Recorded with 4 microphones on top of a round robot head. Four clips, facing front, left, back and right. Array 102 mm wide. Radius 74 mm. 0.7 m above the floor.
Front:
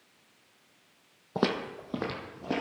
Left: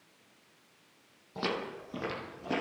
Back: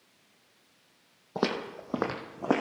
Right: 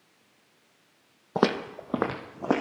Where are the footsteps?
90° right, 1.4 m; by 2.6 s 130° right, 1.8 m.